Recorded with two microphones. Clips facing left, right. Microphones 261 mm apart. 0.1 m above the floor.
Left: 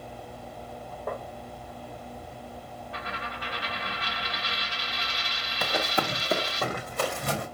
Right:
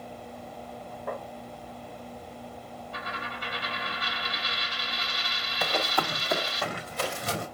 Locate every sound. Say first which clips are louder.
1.1 s tapping: left 1 dB; 60° left (ahead or behind), 2.5 m
2.9 s a dropped coin: left 1 dB; 65° left (ahead or behind), 1.7 m
5.6 s running footsteps: left 1 dB; centre (ahead or behind), 0.8 m; by 7.5 s 60° left (ahead or behind), 1.7 m